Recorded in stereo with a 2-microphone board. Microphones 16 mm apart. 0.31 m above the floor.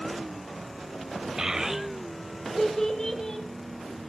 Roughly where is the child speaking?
Right.